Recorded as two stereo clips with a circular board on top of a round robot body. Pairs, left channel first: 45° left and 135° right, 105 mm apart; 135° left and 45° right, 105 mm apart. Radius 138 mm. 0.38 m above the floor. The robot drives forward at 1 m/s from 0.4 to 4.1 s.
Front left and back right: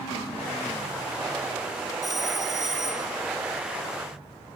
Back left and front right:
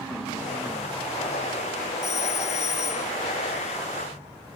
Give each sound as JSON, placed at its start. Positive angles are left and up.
{"t": 2.0, "sound": "a phone ringing", "azimuth_deg": 135}